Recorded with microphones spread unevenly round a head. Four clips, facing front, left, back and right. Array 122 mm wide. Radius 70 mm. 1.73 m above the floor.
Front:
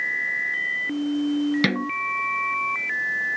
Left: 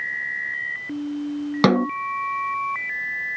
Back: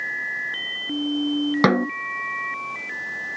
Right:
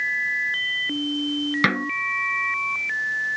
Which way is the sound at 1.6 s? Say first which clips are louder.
Left 9 dB, back 6 dB; 135° left.